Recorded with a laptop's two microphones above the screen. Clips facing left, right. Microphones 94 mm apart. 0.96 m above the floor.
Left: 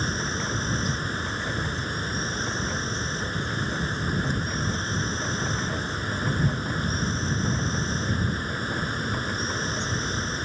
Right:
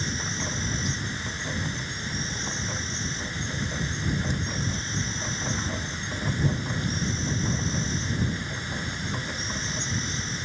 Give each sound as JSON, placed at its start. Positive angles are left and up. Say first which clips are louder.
{"t": 0.0, "sound": "an insect", "louder": "left 3 dB", "side_deg": 45}